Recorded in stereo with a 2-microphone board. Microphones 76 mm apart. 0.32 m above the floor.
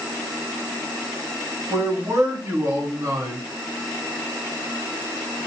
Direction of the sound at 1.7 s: 45° right (ahead or behind).